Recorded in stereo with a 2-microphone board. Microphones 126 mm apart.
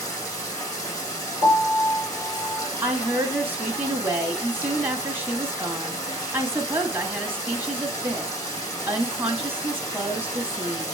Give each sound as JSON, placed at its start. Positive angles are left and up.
{"t": 0.0, "sound": "running water", "side_deg": 25, "distance_m": 4.0}
{"t": 1.4, "sound": "a piano", "side_deg": 45, "distance_m": 2.5}
{"t": 2.8, "sound": "a woman speaking", "side_deg": -15, "distance_m": 1.5}